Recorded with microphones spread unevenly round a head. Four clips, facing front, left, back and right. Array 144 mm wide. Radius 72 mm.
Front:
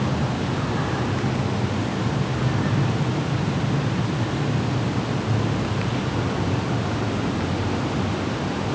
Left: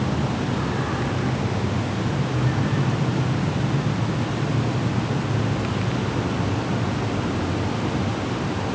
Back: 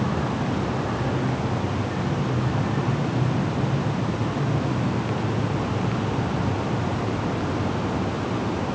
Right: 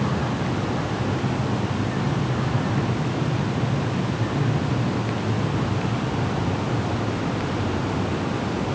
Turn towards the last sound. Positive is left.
No sound to turn to.